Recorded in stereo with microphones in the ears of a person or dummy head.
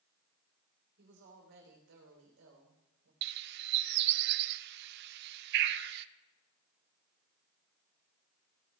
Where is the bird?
65° right (ahead or behind), 0.6 m.